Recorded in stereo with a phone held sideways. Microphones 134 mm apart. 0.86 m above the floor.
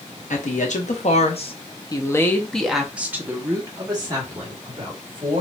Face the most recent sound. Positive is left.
turn(degrees=-40)  # may be behind; listen again after turning